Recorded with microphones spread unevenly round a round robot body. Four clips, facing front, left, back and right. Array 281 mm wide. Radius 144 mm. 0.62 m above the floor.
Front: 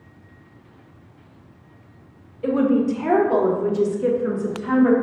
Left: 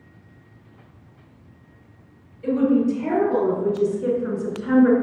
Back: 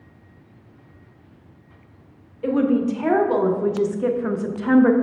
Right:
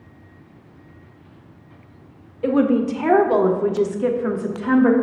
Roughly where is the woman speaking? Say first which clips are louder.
Right 1 dB, front 1 dB; right.